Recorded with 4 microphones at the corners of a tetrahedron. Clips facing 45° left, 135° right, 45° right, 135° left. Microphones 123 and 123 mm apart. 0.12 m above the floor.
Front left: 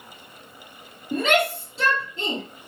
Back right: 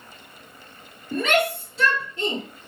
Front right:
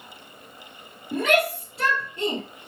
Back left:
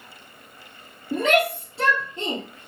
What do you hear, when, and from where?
1.1 s a shout: 90° left, 2 m